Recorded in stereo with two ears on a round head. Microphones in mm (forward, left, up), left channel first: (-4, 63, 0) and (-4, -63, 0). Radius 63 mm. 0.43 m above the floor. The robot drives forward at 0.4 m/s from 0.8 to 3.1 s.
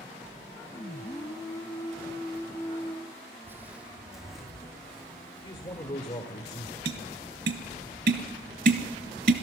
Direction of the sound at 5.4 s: 30° left (ahead or behind).